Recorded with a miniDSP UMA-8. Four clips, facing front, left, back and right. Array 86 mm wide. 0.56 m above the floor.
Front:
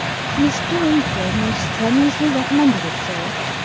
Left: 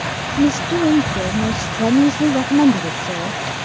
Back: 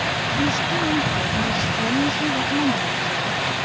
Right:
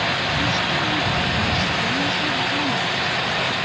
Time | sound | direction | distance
0.4 | a woman speaking | 55° left | ?